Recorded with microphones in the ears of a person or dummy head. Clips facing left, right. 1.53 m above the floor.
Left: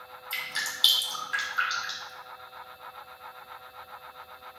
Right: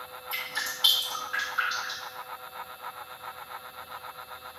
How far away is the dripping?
About 1.7 m.